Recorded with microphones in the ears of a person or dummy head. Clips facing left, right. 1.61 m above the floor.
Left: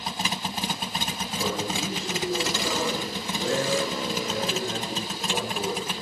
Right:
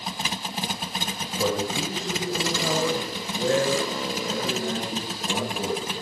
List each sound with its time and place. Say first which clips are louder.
1.4 s a man speaking: right 4 dB; 80° right, 9 m; by 5.9 s 75° right (ahead or behind), 14.5 m